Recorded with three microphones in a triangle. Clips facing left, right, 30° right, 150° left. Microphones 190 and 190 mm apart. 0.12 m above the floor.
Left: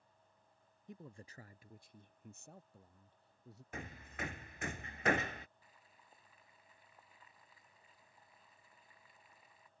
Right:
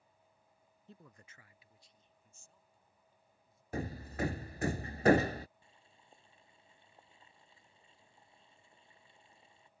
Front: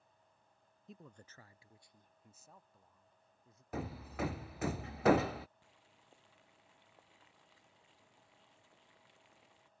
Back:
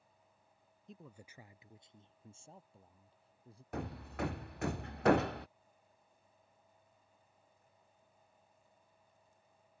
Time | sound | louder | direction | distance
0.9 | a man speaking | left 6 dB, back 1 dB | 55° left | ?
3.7 | hammering | right 10 dB, even | 120° right | ?
5.6 | boiling | right 1 dB, front 1 dB | 25° right | ?